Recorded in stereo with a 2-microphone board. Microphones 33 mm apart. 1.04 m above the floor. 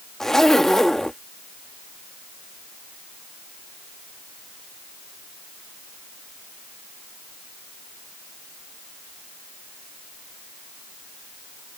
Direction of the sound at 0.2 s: 15° left (ahead or behind).